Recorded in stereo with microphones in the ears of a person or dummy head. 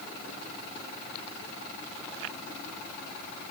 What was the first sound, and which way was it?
Only background noise.